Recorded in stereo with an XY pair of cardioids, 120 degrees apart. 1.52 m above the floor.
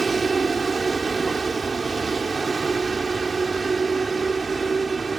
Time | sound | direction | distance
0.0 | a vehicle | 25° right | ?